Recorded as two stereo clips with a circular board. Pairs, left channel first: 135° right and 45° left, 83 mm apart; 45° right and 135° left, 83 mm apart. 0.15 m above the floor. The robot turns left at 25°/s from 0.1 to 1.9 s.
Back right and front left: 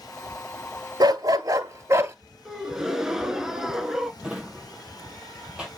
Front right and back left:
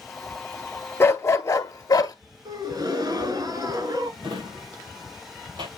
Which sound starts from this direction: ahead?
A dog barking, at 1.0 s.